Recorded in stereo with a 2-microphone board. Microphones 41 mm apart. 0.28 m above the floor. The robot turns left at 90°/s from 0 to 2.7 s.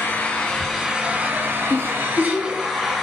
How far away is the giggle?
About 1.5 m.